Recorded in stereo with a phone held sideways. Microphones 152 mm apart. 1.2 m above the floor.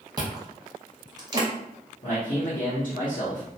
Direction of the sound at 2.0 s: 70° left (ahead or behind).